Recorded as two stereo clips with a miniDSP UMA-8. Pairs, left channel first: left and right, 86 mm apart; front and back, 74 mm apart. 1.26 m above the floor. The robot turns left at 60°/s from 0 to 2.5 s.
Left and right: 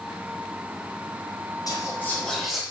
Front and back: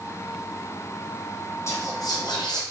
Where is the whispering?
50° left, 0.8 m; by 2.6 s straight ahead, 0.8 m.